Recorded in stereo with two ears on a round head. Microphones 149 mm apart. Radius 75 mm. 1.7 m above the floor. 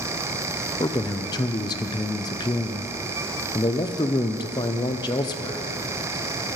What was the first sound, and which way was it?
A man speaking, 25° left (ahead or behind).